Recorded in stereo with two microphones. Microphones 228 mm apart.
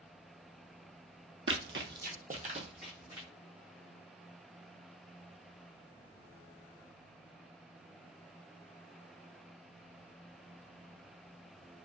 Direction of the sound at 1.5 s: 60° right (ahead or behind).